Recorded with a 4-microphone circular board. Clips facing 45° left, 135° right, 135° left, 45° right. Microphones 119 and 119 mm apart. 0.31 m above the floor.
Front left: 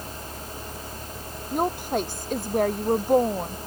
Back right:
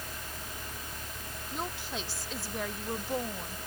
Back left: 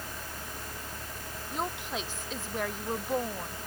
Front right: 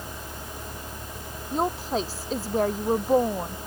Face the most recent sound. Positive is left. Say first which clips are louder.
# front left 13 dB, front right 9 dB
turn(degrees=10)